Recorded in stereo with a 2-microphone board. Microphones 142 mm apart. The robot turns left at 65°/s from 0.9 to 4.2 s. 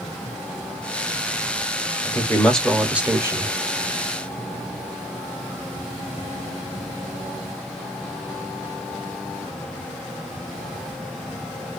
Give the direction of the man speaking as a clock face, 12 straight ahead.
11 o'clock.